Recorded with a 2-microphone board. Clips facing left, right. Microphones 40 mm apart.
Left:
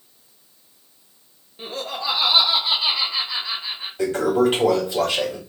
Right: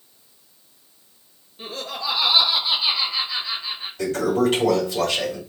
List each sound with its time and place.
1.6 s laughter: 20° left (ahead or behind), 0.6 m; by 3.9 s 55° left (ahead or behind), 1.6 m
4.0 s a toilet flushing: 25° left (ahead or behind), 2 m